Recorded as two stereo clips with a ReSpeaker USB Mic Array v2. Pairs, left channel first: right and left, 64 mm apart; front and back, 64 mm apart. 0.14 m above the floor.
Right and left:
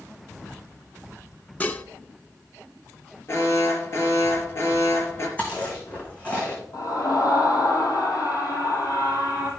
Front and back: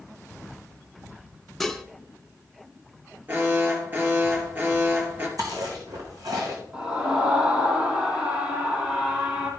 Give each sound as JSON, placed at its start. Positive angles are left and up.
{"t": 1.6, "sound": "dishes clattering", "azimuth_deg": -85, "distance_m": 0.8}
{"t": 3.3, "sound": "an alarm", "azimuth_deg": -130, "distance_m": 3.0}
{"t": 5.4, "sound": "chewing", "azimuth_deg": -160, "distance_m": 4.0}
{"t": 6.7, "sound": "a scream", "azimuth_deg": -120, "distance_m": 3.5}